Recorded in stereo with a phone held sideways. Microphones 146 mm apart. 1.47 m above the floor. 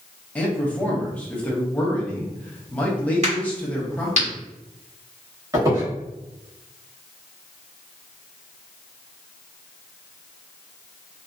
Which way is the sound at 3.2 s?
50° right (ahead or behind).